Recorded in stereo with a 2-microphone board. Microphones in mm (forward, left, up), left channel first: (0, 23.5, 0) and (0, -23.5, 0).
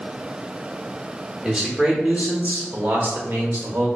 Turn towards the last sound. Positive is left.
turn(degrees=-55)  # may be behind; listen again after turning